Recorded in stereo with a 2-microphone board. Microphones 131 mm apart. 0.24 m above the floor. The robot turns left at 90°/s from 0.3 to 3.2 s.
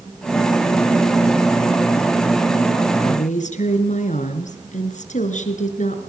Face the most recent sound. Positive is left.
turn(degrees=70)  # may be behind; listen again after turning